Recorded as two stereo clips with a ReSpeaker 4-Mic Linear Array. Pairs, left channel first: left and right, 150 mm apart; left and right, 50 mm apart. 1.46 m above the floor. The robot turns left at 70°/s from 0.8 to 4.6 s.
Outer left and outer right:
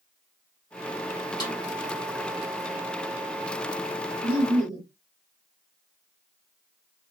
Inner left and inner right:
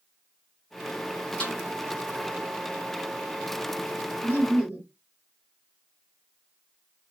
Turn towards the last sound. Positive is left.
turn(degrees=-25)  # may be behind; listen again after turning